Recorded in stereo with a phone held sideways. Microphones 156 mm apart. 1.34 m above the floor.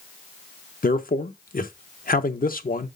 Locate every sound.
0.8 s a man speaking: 65° left (ahead or behind), 0.8 m